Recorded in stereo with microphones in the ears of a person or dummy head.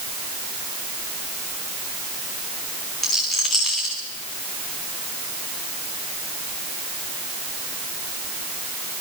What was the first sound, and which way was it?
A rattle, centre (ahead or behind).